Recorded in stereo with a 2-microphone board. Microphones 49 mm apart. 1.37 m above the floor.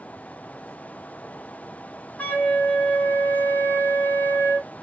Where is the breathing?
No breathing in this recording.